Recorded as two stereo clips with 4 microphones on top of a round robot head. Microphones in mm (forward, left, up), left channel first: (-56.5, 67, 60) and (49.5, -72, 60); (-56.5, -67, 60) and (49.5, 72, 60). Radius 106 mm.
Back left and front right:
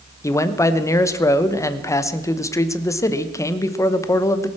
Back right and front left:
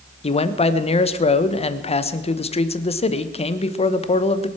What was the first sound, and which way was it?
A man speaking, 165° right.